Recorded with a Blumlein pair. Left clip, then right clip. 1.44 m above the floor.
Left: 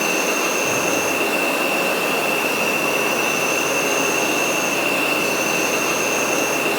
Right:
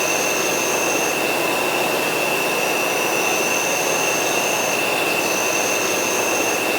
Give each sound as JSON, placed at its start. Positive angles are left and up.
{"t": 0.0, "sound": "an insect", "azimuth_deg": -20, "distance_m": 0.9}